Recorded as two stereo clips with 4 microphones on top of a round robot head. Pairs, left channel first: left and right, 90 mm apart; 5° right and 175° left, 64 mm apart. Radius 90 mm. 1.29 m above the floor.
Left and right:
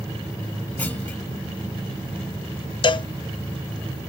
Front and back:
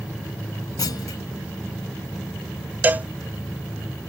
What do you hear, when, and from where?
0.8 s a clunk: 15° left
2.8 s a cowbell: 115° left